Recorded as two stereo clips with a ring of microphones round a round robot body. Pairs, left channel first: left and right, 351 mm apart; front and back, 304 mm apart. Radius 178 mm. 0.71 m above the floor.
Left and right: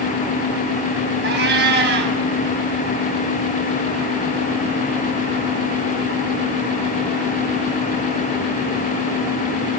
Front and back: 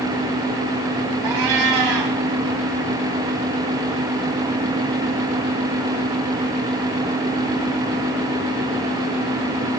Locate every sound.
1.2 s a cat meowing: 150° right, 3 m